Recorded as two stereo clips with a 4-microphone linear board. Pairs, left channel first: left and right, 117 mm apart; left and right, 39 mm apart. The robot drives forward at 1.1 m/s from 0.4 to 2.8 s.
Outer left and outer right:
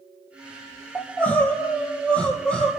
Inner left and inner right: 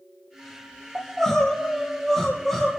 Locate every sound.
0.9 s crying: 15° left (ahead or behind), 3 m; by 2.7 s 10° left (ahead or behind), 4.5 m